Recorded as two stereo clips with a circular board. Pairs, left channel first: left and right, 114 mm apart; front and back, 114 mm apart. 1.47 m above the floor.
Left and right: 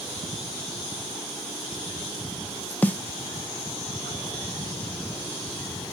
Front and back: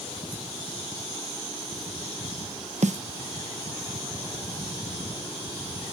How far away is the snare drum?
About 0.5 m.